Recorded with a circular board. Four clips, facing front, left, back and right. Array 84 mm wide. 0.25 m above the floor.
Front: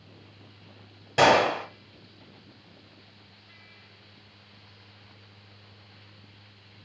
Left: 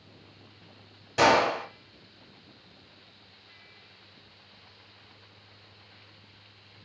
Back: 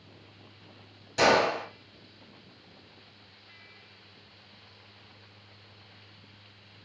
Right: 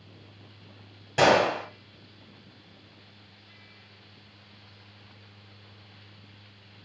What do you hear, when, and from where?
1.2 s a gunshot: 20° right, 1.0 m